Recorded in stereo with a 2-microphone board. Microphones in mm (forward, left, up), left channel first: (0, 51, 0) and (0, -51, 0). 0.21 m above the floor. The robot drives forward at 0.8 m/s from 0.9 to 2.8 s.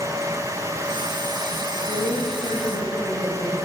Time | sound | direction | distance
1.7 | a woman speaking | 30° left (ahead or behind) | 9 m